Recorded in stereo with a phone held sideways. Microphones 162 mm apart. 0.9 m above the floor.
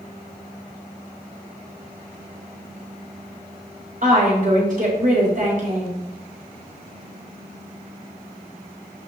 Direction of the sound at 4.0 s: 60° right (ahead or behind).